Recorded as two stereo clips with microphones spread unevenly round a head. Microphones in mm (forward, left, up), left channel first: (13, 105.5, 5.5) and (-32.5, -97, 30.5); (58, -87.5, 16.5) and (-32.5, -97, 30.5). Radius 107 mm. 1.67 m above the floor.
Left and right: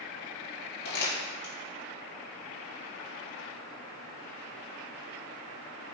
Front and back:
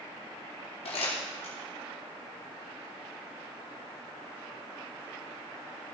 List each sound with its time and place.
0.8 s crumpling: 35° left, 4.5 m